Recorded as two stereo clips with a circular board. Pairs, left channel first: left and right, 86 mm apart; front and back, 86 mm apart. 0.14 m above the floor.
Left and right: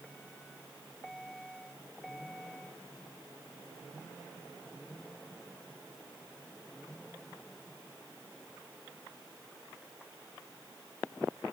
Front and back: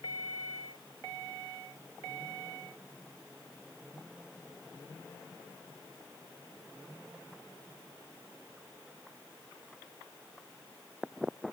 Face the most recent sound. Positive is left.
No sound to turn to.